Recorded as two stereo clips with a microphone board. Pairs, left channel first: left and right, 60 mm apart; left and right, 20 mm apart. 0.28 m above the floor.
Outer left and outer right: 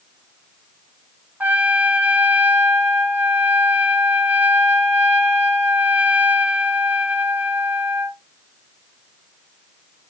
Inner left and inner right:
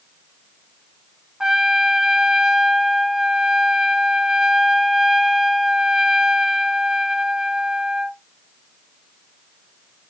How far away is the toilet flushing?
I don't hear a toilet flushing.